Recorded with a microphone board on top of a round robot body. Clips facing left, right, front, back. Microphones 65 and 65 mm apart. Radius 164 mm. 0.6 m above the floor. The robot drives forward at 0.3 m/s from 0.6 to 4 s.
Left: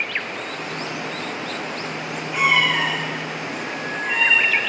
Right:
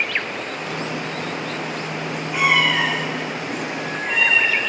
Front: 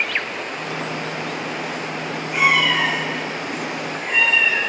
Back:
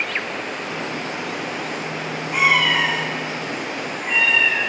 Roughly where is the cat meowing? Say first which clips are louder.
Right 1 dB, even; behind.